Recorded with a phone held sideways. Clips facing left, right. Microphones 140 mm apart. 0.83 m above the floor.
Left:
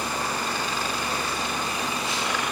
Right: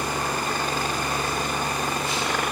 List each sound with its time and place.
0.0 s a helicopter: 50° right (ahead or behind)